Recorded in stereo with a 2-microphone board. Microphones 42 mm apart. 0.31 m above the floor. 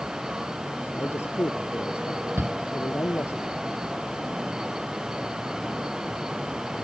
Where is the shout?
75° right (ahead or behind).